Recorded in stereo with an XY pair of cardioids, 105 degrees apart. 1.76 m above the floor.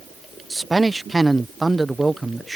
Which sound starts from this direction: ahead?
A man speaking, at 0.5 s.